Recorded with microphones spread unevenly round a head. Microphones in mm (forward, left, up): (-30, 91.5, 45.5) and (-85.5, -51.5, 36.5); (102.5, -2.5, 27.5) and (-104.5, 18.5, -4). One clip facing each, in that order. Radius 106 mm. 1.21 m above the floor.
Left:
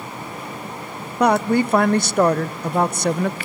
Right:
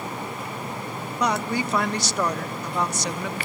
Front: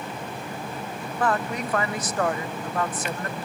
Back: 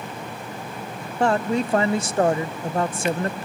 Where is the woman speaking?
115° left, 0.5 m.